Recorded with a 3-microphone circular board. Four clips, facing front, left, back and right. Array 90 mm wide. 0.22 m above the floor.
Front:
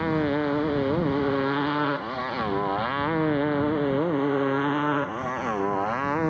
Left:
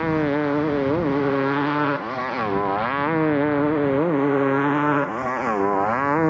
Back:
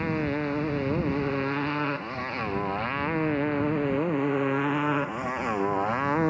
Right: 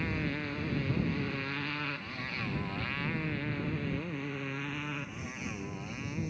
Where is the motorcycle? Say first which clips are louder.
Left 15 dB, front 4 dB; 70° left; by 6.3 s 90° left.